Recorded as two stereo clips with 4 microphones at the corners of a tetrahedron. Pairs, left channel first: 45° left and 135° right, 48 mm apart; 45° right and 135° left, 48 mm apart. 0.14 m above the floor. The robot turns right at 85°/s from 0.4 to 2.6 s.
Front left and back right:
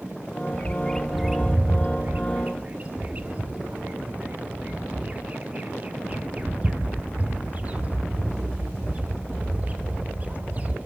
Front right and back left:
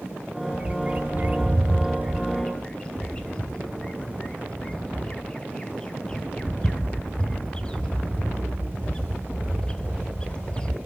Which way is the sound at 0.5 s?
85° left.